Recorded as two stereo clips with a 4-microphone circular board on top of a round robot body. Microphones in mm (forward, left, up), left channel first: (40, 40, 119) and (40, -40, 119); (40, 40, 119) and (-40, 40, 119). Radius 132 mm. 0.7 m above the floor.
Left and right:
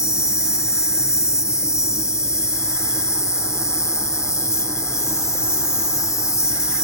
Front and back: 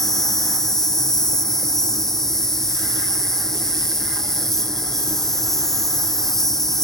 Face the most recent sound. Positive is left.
turn(degrees=80)